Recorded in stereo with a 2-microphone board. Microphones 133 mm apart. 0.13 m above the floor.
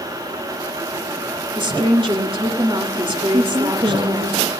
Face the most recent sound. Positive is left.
turn(degrees=-45)  # may be behind; listen again after turning